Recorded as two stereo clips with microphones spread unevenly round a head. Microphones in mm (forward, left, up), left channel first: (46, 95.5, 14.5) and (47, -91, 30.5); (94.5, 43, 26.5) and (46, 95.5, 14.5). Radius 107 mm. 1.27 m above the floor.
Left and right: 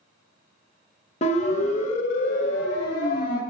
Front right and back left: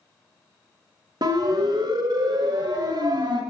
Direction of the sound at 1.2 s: 145° left.